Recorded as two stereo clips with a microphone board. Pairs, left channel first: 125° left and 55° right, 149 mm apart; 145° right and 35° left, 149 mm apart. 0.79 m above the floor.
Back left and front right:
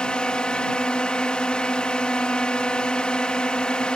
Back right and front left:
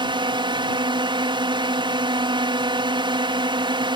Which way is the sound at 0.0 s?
45° left.